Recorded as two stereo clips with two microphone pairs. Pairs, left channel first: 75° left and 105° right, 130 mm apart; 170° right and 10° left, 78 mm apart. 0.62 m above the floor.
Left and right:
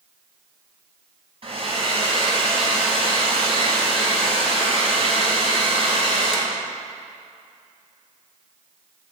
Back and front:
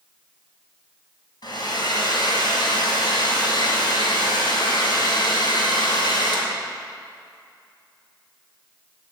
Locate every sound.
1.4 s a hair dryer: 145° right, 2.5 m